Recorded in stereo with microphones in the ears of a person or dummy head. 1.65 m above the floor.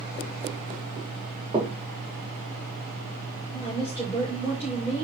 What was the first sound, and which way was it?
Knocking, 25° right (ahead or behind).